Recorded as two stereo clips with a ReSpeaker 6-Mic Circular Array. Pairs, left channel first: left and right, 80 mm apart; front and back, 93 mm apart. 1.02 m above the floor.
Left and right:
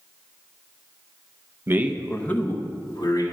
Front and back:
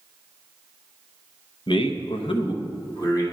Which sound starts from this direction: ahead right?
A man speaking, at 1.7 s.